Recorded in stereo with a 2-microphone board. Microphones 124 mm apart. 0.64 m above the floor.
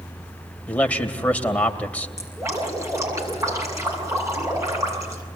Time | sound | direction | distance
0.7 | a man speaking | 10° left (ahead or behind) | 2.5 m
2.2 | dripping | 25° right (ahead or behind) | 7 m